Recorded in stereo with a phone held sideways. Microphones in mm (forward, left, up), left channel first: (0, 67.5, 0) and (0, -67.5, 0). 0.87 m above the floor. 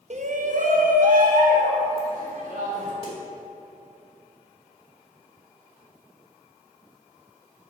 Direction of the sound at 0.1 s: 50° right (ahead or behind).